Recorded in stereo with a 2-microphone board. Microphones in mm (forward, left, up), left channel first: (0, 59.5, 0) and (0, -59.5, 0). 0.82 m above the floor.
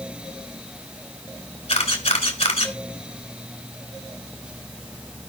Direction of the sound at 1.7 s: 70° left (ahead or behind).